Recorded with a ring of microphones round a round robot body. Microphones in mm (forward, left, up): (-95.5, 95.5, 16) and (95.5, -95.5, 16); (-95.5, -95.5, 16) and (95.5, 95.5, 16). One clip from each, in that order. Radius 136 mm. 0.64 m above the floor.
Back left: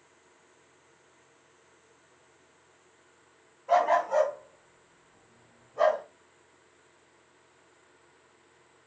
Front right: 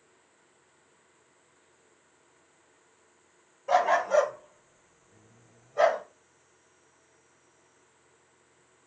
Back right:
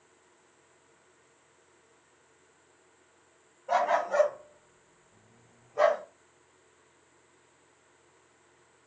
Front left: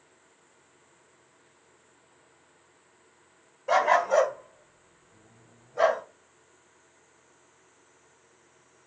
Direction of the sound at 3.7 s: 20° left.